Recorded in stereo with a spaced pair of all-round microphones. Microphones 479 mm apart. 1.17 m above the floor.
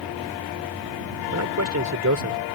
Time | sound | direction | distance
1.3 | a man speaking | 35° right (ahead or behind) | ?